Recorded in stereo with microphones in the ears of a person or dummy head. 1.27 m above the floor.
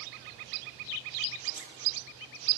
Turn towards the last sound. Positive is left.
turn(degrees=40)  # may be behind; listen again after turning